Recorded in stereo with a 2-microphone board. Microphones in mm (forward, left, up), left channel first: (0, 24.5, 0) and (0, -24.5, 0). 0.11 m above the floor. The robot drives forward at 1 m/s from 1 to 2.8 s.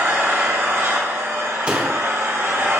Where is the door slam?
25° right (ahead or behind), 1.7 m; by 2.0 s 20° right (ahead or behind), 2 m.